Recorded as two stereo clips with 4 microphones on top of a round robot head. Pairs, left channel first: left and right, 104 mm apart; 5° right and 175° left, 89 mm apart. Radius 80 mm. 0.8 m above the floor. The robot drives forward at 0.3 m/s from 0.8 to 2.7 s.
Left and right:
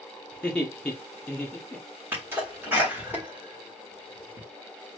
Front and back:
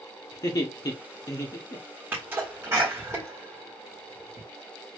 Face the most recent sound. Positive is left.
turn(degrees=-150)